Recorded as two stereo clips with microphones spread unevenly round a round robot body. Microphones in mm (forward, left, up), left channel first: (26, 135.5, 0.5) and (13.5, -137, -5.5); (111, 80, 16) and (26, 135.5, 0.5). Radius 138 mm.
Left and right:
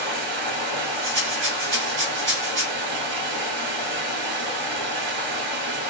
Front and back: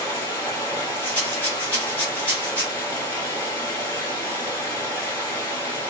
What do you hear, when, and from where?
0.0 s running water: 100° right, 1.5 m
1.0 s a rattle: 115° right, 1.5 m